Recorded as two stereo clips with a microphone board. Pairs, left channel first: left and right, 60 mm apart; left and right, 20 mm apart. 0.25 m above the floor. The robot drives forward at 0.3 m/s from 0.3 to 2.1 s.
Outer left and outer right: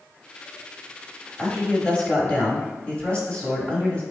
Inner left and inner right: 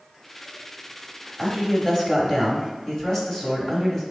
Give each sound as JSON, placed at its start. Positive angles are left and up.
{"t": 1.4, "sound": "a man speaking", "side_deg": 20, "distance_m": 1.0}